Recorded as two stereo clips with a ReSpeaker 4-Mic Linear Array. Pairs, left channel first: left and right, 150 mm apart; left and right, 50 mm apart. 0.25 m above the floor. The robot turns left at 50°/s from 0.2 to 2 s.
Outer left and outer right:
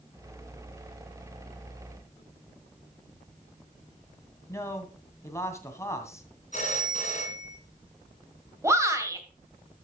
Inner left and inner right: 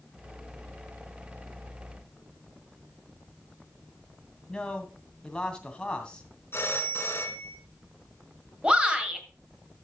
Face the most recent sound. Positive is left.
turn(degrees=-20)  # may be behind; listen again after turning